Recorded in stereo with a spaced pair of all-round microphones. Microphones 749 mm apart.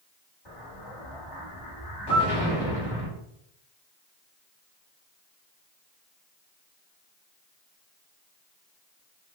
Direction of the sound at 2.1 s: 30° left (ahead or behind).